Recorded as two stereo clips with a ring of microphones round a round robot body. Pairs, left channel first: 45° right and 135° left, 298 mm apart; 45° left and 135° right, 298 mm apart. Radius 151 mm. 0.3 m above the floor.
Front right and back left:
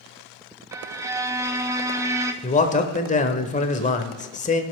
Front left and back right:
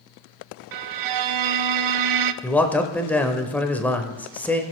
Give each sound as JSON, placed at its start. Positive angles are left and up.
{"t": 0.7, "sound": "a violin", "azimuth_deg": -145, "distance_m": 0.6}
{"t": 2.4, "sound": "a man speaking", "azimuth_deg": -30, "distance_m": 0.9}